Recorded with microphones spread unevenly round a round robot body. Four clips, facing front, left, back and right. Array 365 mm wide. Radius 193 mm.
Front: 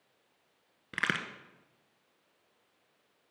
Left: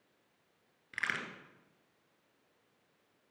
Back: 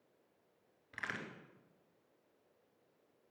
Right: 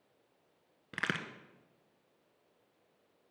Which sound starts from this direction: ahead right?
A crack, at 0.9 s.